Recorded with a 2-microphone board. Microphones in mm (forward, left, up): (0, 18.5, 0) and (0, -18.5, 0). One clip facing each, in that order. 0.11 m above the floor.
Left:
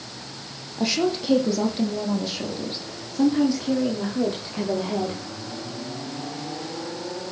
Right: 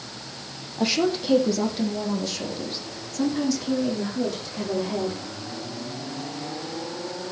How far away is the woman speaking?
About 4 m.